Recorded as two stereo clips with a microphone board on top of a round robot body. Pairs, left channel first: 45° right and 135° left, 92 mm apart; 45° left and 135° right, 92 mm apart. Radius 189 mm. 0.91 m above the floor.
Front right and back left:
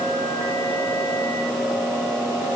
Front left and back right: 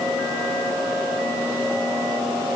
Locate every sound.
Only background noise.